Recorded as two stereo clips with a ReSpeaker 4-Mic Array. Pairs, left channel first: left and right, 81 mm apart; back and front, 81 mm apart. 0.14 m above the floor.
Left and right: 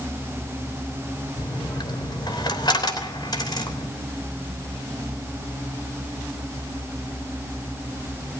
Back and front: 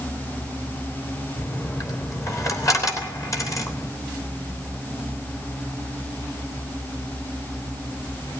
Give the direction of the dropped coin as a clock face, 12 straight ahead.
8 o'clock.